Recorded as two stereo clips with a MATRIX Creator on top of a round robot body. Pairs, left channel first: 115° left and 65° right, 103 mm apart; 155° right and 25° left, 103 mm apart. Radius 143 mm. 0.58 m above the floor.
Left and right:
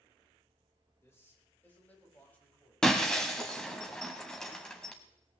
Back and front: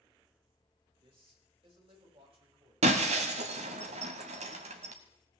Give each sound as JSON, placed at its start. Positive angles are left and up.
{"t": 1.0, "sound": "a man speaking", "azimuth_deg": 50, "distance_m": 3.5}
{"t": 2.8, "sound": "breaking glass", "azimuth_deg": 30, "distance_m": 0.6}